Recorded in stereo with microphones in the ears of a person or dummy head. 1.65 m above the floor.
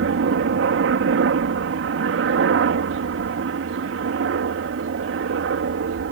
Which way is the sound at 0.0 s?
70° right (ahead or behind).